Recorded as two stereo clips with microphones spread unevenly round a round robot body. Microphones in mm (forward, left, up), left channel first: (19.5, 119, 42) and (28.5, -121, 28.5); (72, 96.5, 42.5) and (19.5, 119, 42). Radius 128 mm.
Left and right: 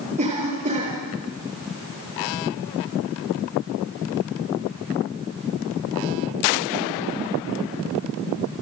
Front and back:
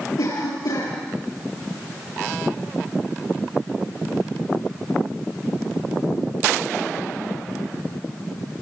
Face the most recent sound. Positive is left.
turn(degrees=-25)